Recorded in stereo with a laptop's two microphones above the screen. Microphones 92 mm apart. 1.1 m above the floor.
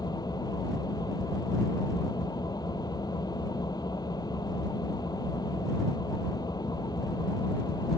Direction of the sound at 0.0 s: 45° left (ahead or behind).